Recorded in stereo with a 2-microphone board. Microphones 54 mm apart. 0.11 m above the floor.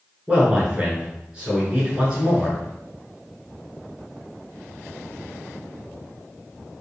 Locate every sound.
0.3 s a man speaking: 20° right (ahead or behind), 1.2 m